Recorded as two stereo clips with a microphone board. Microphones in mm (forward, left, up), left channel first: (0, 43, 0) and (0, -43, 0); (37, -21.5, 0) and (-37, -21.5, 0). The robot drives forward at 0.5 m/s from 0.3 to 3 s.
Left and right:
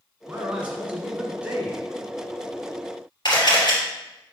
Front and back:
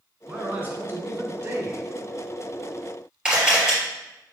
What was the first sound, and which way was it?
A man speaking, 140° right.